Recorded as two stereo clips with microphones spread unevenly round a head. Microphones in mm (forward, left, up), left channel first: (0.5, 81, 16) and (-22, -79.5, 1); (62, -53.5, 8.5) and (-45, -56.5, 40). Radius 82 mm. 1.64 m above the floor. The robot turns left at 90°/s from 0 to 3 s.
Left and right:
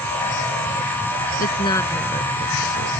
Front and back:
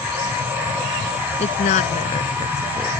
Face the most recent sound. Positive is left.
turn(degrees=-100)